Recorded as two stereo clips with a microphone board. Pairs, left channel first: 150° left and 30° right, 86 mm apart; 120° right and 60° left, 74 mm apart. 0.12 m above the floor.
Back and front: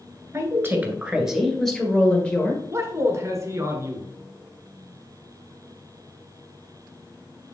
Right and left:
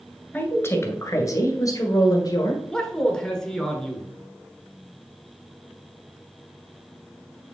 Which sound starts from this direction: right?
A woman speaking, at 0.3 s.